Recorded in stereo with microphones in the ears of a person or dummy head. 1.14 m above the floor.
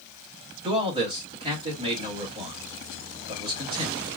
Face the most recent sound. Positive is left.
turn(degrees=-35)  # may be behind; listen again after turning